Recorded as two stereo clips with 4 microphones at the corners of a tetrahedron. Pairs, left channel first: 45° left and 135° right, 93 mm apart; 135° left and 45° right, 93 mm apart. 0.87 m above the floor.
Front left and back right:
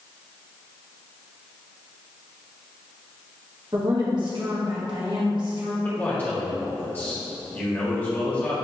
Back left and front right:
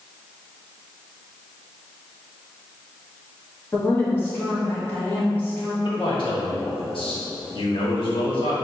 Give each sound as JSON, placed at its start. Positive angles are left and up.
{"t": 3.7, "sound": "a woman speaking", "azimuth_deg": -160, "distance_m": 1.3}
{"t": 5.8, "sound": "a man speaking", "azimuth_deg": 115, "distance_m": 1.3}